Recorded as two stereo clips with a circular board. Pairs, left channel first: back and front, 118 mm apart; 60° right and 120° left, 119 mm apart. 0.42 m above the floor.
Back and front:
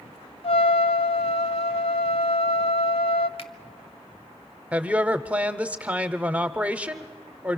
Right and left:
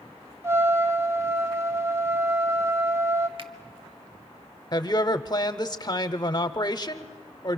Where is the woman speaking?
70° right, 0.9 m.